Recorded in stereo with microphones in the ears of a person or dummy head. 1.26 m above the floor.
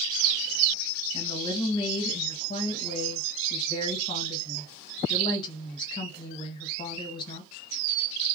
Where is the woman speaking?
25° left (ahead or behind), 1.1 m.